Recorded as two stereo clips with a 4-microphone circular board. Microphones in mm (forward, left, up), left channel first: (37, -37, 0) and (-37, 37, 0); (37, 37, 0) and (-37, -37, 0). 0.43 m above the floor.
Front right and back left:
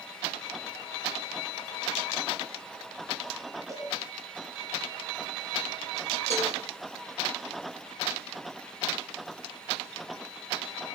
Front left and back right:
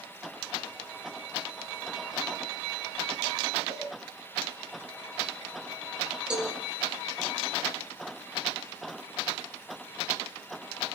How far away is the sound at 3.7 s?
About 9 m.